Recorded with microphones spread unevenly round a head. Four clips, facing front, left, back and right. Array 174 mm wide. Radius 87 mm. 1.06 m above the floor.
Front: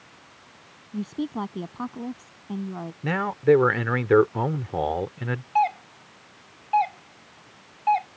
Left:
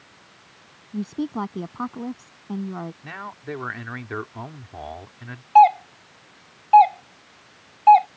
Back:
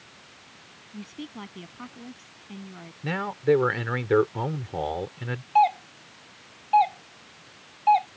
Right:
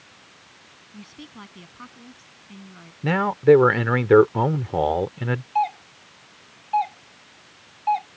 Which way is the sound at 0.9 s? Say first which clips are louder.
Left 16 dB, front 10 dB; 55° left.